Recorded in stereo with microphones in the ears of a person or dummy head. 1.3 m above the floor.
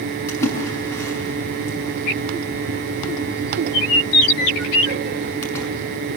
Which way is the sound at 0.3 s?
20° left (ahead or behind).